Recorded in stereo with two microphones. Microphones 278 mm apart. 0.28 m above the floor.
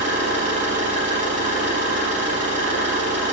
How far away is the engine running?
About 5.5 m.